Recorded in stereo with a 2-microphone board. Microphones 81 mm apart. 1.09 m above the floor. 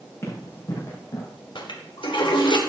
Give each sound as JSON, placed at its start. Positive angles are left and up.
{"t": 0.2, "sound": "running footsteps", "side_deg": 35, "distance_m": 5.0}
{"t": 1.6, "sound": "a toilet flushing", "side_deg": 80, "distance_m": 2.0}